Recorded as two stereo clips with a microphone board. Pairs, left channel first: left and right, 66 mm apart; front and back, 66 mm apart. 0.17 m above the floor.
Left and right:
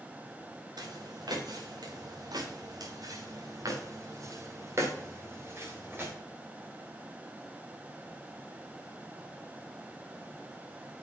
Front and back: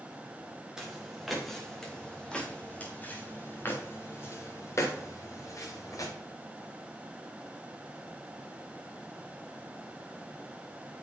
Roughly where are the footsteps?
Right.